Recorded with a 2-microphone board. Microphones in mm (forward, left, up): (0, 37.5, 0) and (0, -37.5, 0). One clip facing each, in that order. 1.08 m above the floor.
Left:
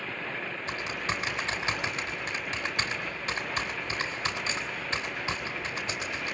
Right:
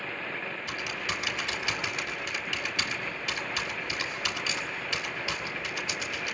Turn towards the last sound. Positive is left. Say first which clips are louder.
# left 3 dB
turn(degrees=35)  # may be behind; listen again after turning